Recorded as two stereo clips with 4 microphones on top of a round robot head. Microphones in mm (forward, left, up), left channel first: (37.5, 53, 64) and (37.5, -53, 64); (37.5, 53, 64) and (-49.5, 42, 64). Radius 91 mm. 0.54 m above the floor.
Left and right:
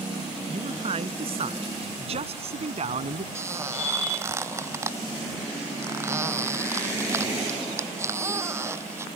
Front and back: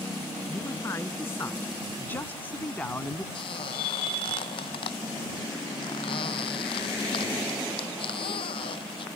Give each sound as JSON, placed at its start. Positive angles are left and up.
{"t": 0.5, "sound": "a man speaking", "azimuth_deg": -60}
{"t": 3.4, "sound": "a squeak", "azimuth_deg": -25}